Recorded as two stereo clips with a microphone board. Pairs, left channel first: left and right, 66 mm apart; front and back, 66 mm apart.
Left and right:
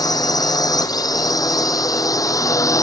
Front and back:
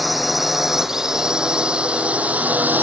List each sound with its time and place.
0.0 s a drone: 90° left; by 2.8 s 120° left